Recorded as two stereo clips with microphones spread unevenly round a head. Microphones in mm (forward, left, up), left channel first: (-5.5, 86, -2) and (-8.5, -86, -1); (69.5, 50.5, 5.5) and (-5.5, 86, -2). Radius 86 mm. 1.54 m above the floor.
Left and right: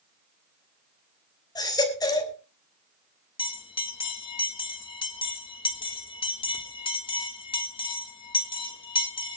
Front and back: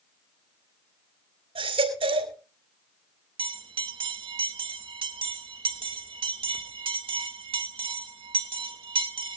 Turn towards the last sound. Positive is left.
turn(degrees=150)